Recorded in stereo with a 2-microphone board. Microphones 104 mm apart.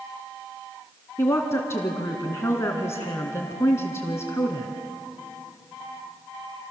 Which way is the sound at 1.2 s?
25° left (ahead or behind).